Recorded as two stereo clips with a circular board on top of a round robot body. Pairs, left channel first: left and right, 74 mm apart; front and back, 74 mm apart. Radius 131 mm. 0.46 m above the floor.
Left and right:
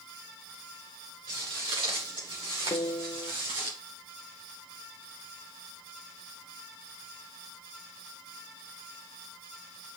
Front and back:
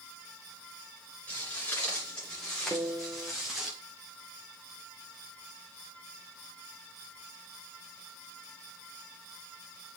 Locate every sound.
1.3 s footsteps: 70° right, 3 m; by 3.7 s 95° right, 2 m
2.7 s a piano: 120° left, 0.7 m